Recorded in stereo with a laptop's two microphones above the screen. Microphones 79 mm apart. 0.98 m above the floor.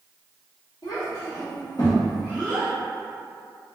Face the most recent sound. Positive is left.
turn(degrees=5)  # may be behind; listen again after turning